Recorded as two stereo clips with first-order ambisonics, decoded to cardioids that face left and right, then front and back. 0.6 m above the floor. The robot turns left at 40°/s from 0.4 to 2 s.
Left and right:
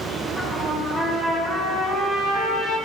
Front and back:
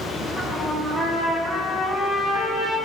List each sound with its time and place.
0.4 s a trumpet: 5° right, 1.1 m; by 2.8 s 70° right, 1.1 m